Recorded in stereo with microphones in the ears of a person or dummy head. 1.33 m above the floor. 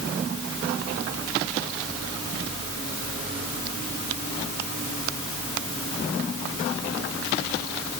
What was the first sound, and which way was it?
Only background noise.